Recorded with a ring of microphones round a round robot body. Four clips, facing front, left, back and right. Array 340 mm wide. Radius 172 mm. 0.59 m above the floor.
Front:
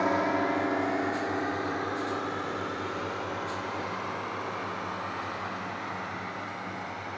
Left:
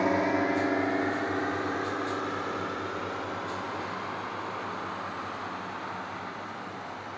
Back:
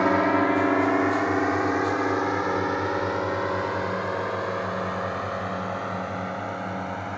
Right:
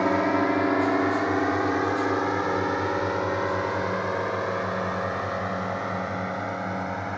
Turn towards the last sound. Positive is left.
turn(degrees=-125)